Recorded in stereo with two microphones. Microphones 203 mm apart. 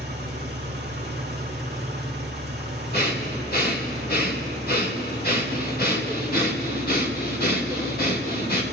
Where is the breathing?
50° left (ahead or behind), 2.0 m.